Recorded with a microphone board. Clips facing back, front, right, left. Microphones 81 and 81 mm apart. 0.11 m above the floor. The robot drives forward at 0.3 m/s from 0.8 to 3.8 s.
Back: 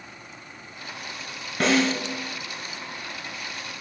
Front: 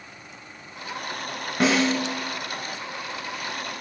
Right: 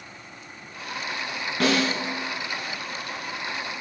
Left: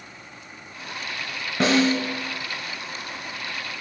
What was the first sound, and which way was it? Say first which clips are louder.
A snare drum: front 1 dB, left 4 dB; 80° left.